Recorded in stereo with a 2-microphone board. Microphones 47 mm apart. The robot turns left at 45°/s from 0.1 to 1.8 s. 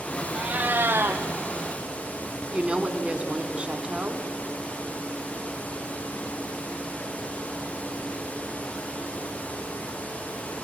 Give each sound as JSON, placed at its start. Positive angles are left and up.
{"t": 0.3, "sound": "a cat meowing", "azimuth_deg": -25, "distance_m": 1.8}
{"t": 2.5, "sound": "a woman speaking", "side_deg": -25, "distance_m": 1.6}